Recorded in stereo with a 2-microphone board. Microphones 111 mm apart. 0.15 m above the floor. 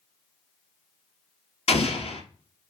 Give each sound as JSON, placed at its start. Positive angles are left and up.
{"t": 1.7, "sound": "an explosion", "side_deg": 75, "distance_m": 1.1}